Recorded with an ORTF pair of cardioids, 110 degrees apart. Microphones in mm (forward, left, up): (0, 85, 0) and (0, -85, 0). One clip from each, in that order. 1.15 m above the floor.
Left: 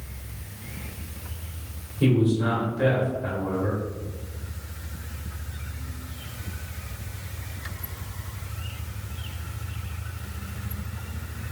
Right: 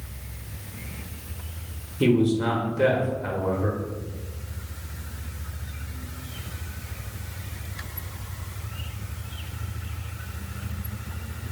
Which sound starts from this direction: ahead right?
A man speaking, at 2.0 s.